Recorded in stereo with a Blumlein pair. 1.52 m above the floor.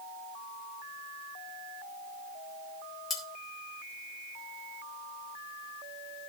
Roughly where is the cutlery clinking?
Ahead.